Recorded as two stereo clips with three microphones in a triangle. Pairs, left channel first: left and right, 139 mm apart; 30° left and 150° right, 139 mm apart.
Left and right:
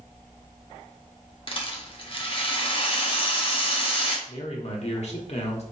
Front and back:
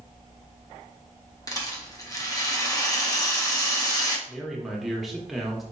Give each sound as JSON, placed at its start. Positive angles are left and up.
{"t": 1.5, "sound": "a rattle", "azimuth_deg": 80, "distance_m": 0.6}
{"t": 4.3, "sound": "a man speaking", "azimuth_deg": 120, "distance_m": 0.8}